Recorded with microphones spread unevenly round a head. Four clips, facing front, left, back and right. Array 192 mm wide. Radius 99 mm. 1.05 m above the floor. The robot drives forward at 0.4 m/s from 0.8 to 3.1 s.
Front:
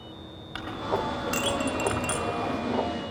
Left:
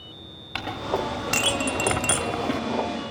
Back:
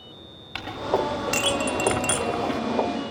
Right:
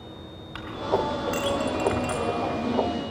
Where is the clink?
75° left, 1.5 m; by 2.6 s 105° left, 1.6 m.